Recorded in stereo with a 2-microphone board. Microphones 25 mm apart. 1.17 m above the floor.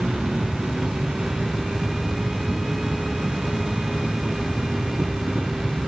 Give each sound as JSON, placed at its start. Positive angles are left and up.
{"t": 0.0, "sound": "an insect", "side_deg": -70}